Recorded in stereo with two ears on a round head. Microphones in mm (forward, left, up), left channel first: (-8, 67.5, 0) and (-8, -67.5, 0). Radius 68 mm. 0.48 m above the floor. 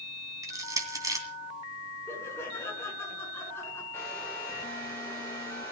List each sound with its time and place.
0.4 s crushing: 25° right (ahead or behind), 2.5 m
2.1 s laughter: 15° left (ahead or behind), 6.5 m
3.9 s a hair dryer: 15° left (ahead or behind), 8.5 m